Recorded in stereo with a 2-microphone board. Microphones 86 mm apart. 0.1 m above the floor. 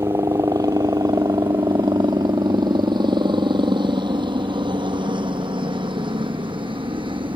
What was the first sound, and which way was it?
A helicopter, 40° right (ahead or behind).